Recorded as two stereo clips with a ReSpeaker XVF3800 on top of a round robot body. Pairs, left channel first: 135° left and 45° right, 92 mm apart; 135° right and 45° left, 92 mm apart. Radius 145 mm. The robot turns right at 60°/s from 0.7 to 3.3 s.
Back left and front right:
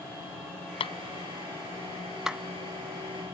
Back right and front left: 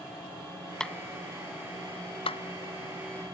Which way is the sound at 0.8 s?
140° left.